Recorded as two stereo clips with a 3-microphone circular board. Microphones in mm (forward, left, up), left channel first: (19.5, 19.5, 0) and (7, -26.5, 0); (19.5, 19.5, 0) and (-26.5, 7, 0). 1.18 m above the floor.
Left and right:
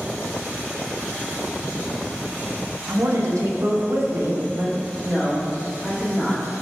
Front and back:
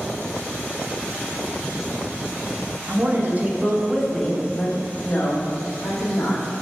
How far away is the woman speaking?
About 1.8 m.